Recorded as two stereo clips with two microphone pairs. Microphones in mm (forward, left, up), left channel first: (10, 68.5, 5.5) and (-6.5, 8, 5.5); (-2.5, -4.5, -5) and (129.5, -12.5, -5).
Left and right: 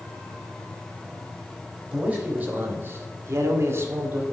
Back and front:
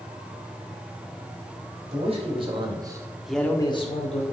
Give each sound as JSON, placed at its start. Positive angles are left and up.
{"t": 1.9, "sound": "a man speaking", "azimuth_deg": -40, "distance_m": 2.5}